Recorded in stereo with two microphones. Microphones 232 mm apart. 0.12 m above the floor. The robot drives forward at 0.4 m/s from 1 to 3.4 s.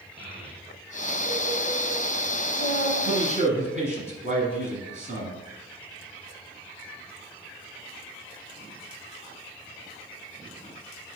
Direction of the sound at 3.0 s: 30° right (ahead or behind).